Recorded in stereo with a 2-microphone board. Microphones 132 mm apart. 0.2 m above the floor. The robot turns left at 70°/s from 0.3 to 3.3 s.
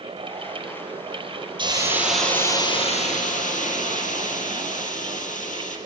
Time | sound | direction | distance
1.6 | a hiss | 140° right | 5 m